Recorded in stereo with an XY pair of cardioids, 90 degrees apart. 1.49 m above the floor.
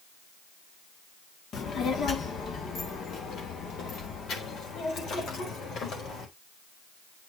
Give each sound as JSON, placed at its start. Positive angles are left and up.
{"t": 1.5, "sound": "a child speaking", "azimuth_deg": 70, "distance_m": 2.0}